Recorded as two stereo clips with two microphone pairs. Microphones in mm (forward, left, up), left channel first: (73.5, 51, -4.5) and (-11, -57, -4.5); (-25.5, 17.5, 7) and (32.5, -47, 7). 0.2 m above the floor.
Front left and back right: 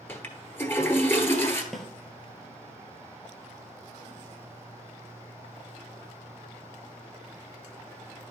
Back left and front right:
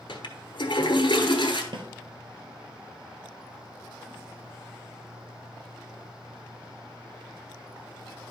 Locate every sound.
0.1 s a toilet flushing: 125° left, 1.0 m
1.7 s a snare drum: 35° right, 1.2 m